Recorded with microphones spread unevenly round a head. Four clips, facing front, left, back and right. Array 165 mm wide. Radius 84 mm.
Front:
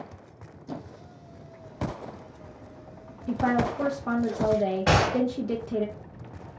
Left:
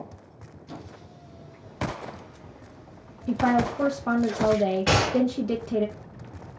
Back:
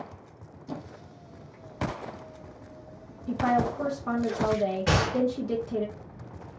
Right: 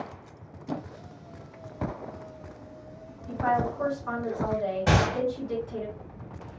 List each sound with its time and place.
0.7 s a squeak: 70° right, 0.6 m
3.3 s a woman speaking: 95° left, 0.7 m
4.9 s a gunshot: 10° right, 2.5 m